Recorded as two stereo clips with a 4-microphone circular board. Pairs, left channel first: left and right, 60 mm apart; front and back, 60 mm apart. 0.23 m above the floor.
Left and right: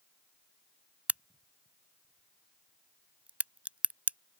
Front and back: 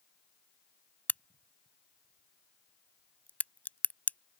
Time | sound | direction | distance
1.1 | a crack | 40° right | ?